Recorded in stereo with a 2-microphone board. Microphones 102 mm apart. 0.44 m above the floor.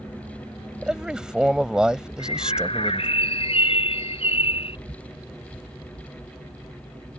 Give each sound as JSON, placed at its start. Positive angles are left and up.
{"t": 0.8, "sound": "a man speaking", "side_deg": -5}
{"t": 2.2, "sound": "a bird", "side_deg": 65}